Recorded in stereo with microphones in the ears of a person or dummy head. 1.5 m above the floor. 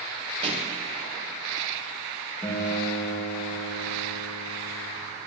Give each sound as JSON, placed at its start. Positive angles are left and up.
{"t": 0.4, "sound": "a pop", "side_deg": -35, "distance_m": 1.2}
{"t": 2.4, "sound": "a guitar", "side_deg": 5, "distance_m": 1.8}